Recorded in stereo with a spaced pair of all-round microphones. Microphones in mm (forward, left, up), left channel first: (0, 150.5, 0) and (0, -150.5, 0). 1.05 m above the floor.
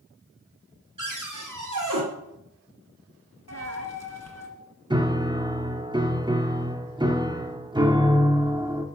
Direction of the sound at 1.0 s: 75° right (ahead or behind).